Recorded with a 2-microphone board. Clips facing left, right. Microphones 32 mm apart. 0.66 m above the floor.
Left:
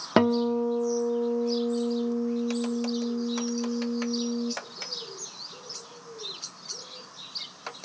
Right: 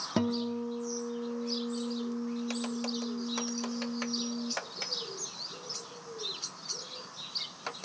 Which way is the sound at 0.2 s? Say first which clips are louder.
Left 9 dB; 50° left (ahead or behind).